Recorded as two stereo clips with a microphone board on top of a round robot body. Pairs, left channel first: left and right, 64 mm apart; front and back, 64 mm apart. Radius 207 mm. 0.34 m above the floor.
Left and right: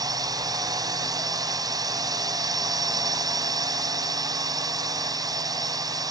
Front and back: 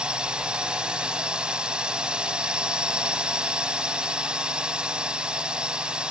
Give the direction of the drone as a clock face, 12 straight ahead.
3 o'clock.